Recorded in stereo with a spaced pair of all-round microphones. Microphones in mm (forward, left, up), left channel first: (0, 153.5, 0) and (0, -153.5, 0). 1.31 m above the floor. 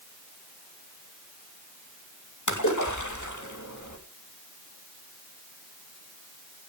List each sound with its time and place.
2.5 s a splash: 70° left (ahead or behind), 2 m